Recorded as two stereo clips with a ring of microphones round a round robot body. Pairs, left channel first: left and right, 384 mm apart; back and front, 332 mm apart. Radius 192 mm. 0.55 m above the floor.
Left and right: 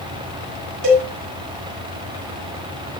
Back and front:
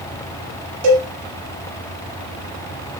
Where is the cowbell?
35° right, 6 m.